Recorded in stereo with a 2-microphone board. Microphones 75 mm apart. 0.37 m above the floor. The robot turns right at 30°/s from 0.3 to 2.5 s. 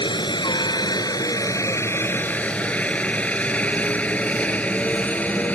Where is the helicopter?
75° left (ahead or behind); by 5.5 s 20° left (ahead or behind).